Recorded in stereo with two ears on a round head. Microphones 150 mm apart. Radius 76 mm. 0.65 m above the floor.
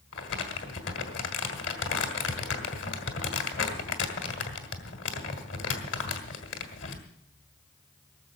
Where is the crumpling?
80° left, 2 m.